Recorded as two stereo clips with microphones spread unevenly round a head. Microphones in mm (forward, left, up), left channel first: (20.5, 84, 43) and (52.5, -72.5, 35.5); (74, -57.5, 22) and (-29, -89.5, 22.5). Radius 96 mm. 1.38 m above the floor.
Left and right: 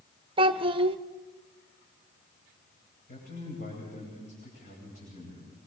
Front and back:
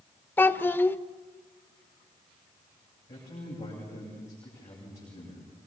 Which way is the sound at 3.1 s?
70° left.